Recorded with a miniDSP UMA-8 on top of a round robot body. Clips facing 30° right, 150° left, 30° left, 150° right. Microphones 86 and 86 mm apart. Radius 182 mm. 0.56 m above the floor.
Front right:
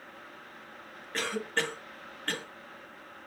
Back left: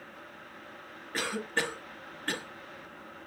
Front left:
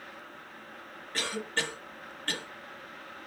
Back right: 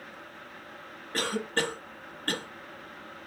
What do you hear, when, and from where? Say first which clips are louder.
1.1 s a cough: even, back right 4 dB; 130° right, 0.9 m